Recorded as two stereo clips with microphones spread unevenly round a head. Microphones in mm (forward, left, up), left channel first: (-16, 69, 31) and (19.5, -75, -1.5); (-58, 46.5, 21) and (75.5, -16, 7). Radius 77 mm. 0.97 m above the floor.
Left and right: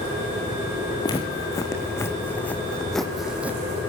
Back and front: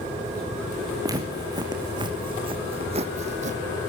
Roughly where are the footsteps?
Ahead left.